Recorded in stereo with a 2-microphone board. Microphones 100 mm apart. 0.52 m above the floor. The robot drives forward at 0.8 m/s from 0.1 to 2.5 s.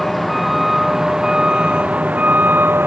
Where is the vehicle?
Centre (ahead or behind); by 2.9 s 20° right (ahead or behind).